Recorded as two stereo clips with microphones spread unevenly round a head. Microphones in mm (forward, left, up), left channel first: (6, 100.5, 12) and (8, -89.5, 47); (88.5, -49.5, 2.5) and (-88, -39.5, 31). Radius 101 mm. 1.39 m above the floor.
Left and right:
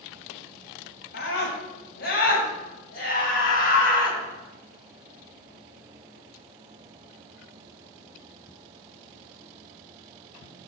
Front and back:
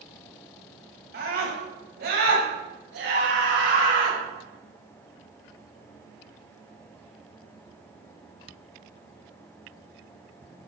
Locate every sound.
1.1 s a scream: 135° left, 8 m; by 4.2 s 140° left, 6.5 m